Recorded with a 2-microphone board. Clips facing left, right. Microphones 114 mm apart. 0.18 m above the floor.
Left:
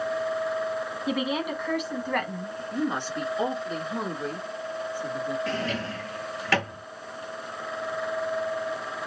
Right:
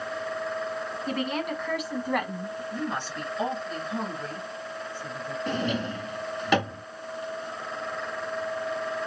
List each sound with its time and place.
1.1 s a woman speaking: 10° left (ahead or behind), 1.2 m; by 2.6 s 20° right (ahead or behind), 1.0 m
2.7 s a woman speaking: 15° left (ahead or behind), 2 m
5.5 s a drawer: 20° right (ahead or behind), 0.7 m